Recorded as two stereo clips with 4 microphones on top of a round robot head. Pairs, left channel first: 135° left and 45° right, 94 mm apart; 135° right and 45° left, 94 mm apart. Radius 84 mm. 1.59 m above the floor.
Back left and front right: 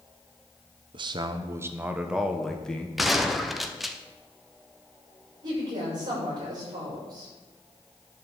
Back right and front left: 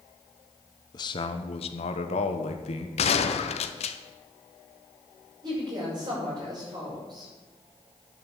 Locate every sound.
0.9 s a man speaking: 85° right, 1.0 m; by 2.9 s 145° right, 1.4 m
3.0 s a gunshot: 135° right, 0.8 m
5.4 s a woman speaking: straight ahead, 6.5 m